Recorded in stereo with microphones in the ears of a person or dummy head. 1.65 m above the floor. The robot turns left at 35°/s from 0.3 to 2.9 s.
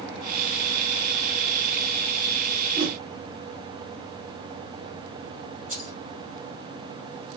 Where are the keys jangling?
40° right (ahead or behind), 6.5 m.